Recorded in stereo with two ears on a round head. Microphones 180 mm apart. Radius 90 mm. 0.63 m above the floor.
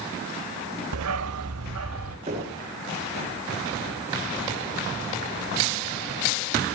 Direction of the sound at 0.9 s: 80° right.